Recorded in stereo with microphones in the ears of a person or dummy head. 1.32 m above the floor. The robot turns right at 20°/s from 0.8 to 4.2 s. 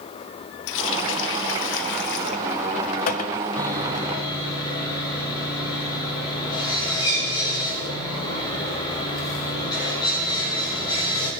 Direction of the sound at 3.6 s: 15° left (ahead or behind).